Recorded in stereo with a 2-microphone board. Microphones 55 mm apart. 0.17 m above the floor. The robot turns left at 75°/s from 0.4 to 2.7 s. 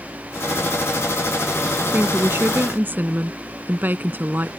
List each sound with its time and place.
1.9 s a woman speaking: 60° right; by 4.5 s 115° right